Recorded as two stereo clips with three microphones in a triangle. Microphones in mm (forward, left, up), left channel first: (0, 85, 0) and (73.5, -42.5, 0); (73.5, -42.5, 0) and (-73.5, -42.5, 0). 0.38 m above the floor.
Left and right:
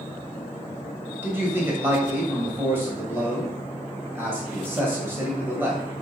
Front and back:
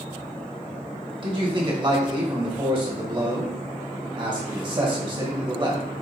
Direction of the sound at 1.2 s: 130° right.